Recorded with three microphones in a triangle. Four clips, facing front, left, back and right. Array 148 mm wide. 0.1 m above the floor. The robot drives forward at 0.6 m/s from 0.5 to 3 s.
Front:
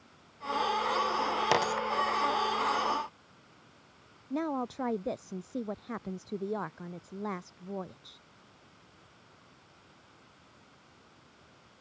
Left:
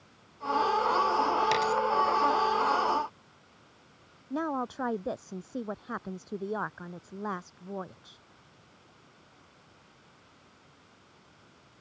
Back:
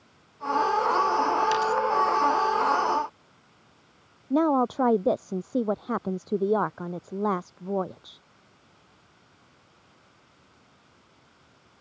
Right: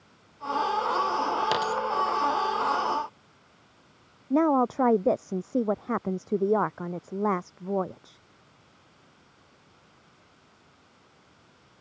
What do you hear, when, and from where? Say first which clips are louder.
1.5 s a dropped coin: even, back 4 dB; 20° right
4.3 s a woman speaking: right 10 dB, back 11 dB; 135° right